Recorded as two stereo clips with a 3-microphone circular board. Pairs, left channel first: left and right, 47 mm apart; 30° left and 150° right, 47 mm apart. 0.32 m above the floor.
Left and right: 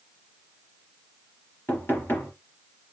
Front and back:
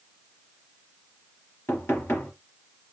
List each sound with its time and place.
1.7 s knocking: 55° left, 3.5 m